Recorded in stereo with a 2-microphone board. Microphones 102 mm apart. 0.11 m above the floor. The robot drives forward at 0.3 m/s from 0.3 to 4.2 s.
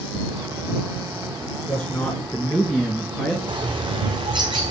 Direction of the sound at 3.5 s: 50° right (ahead or behind).